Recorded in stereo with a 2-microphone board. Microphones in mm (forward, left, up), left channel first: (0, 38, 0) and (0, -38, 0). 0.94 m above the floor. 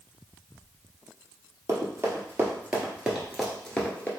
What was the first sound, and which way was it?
Running footsteps, 40° right (ahead or behind).